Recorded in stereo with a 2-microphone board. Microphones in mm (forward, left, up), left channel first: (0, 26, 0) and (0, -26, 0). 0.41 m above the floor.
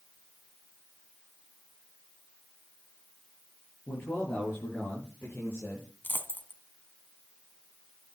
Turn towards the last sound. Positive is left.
turn(degrees=40)  # may be behind; listen again after turning